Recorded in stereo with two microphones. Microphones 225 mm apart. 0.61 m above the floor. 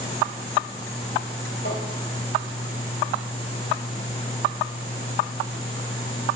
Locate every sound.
1.6 s tapping: 55° left (ahead or behind), 2.5 m